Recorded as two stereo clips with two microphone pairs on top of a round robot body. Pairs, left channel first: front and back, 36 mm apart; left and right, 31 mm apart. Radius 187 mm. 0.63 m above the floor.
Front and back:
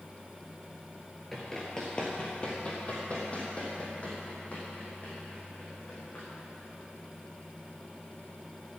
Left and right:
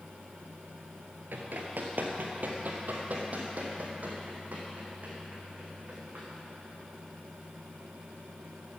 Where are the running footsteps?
80° right, 0.8 m; by 6.2 s 50° right, 4 m.